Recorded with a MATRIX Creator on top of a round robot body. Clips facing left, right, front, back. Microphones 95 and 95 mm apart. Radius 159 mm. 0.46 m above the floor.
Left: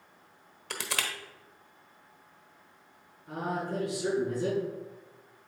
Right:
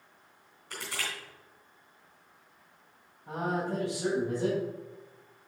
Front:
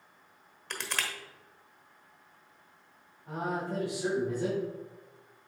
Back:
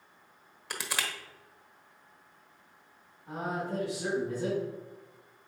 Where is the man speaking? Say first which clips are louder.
Right 2 dB, front 1 dB; 70° right, 4 m.